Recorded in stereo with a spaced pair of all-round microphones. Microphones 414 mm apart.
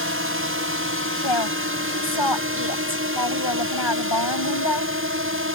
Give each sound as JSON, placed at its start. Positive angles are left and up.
{"t": 0.0, "sound": "a drone", "side_deg": -30}
{"t": 1.2, "sound": "a woman speaking", "side_deg": 90}